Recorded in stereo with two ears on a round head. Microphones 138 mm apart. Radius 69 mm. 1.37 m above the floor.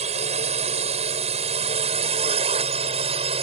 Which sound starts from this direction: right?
A drone, at 0.0 s.